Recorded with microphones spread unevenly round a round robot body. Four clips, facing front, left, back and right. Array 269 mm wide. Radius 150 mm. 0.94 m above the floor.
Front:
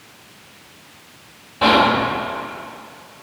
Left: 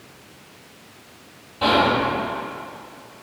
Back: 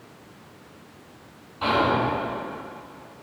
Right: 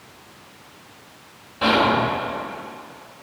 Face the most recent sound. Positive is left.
turn(degrees=-10)